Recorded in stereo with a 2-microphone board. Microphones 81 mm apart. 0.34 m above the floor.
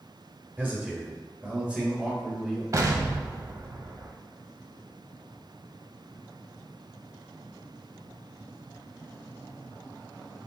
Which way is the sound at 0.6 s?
20° right (ahead or behind).